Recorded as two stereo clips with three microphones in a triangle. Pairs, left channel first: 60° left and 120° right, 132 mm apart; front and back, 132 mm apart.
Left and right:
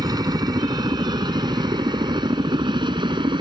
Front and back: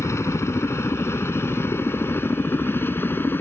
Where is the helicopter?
65° right; by 3.4 s 70° right.